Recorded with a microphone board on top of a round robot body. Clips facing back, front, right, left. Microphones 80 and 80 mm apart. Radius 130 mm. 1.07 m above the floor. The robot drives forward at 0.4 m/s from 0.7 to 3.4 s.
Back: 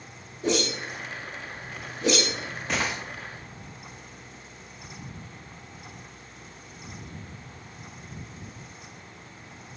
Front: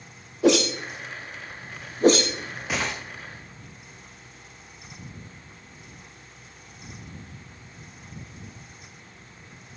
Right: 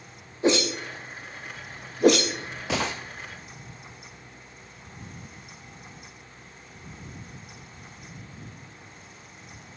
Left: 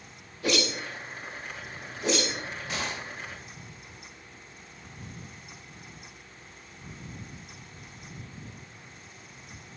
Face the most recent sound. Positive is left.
turn(degrees=-130)